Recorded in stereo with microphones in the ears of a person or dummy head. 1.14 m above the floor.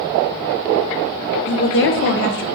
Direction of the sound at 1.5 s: 50° left (ahead or behind).